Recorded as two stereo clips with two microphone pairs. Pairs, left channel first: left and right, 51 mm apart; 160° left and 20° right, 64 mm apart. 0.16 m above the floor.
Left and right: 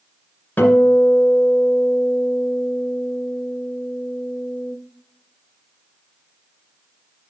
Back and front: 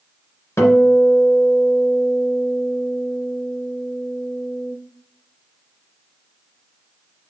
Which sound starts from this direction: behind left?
A guitar, at 0.6 s.